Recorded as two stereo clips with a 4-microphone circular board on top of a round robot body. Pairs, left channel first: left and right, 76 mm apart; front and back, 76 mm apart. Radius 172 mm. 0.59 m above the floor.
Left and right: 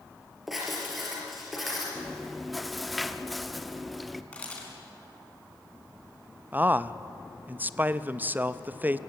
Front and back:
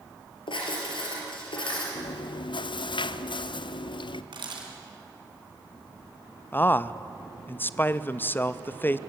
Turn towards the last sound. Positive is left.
turn(degrees=-40)